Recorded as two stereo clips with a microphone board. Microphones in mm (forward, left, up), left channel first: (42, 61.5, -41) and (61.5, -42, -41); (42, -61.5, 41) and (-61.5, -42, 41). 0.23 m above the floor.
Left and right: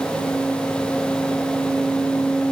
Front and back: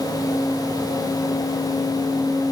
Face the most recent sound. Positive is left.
No sound to turn to.